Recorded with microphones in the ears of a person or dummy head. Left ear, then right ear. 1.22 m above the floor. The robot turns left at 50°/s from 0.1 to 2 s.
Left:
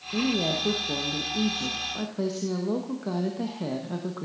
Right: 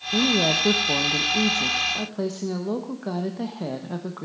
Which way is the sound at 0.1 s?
75° right.